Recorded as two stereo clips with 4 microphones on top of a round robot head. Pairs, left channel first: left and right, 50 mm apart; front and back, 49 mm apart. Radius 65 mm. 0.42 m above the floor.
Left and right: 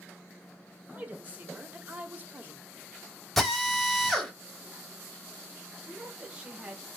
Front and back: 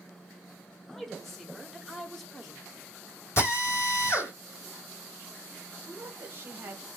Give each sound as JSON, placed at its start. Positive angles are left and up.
{"t": 0.9, "sound": "a woman speaking", "azimuth_deg": -85, "distance_m": 0.9}
{"t": 3.4, "sound": "a drill", "azimuth_deg": 5, "distance_m": 2.5}
{"t": 5.8, "sound": "a woman speaking", "azimuth_deg": -150, "distance_m": 1.5}